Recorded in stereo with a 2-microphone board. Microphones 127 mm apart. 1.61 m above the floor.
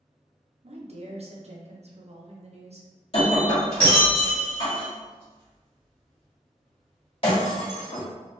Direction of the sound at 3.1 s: 45° left (ahead or behind).